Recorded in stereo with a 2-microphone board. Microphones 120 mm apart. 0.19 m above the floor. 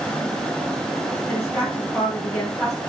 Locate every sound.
1.3 s a woman speaking: 15° left (ahead or behind), 1.1 m